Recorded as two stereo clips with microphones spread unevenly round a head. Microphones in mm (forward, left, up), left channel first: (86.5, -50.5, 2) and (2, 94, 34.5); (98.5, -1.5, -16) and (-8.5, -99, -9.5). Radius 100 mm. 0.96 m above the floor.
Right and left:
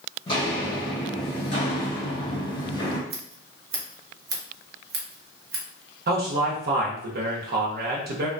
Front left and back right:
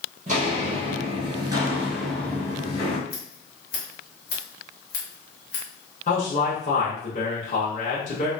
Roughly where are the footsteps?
Behind right.